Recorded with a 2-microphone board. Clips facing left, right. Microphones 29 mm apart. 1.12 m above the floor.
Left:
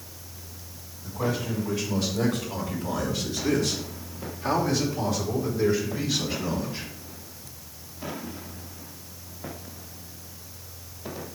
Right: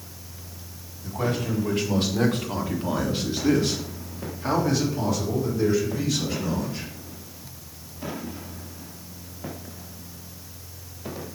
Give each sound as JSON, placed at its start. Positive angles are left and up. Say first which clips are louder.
{"t": 1.0, "sound": "a man speaking", "louder": "right 2 dB", "side_deg": -80, "distance_m": 3.0}